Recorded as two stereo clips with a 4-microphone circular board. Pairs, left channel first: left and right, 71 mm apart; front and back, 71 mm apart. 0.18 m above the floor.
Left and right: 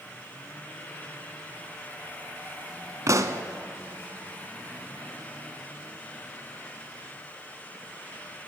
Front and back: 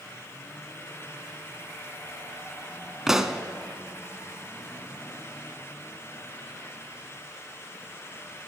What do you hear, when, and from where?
3.1 s a pop: 100° right, 0.6 m